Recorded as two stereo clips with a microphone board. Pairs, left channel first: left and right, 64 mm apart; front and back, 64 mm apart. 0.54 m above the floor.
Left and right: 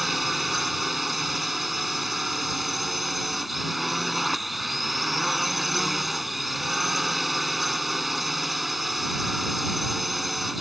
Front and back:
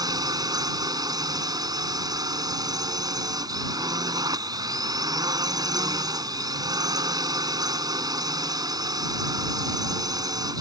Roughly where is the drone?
Behind.